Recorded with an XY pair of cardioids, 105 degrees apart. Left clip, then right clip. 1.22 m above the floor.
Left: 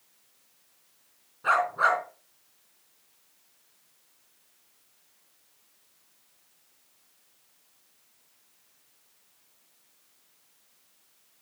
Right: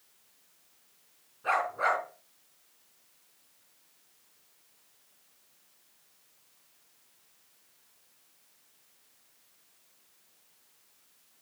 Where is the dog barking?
60° left, 4 m.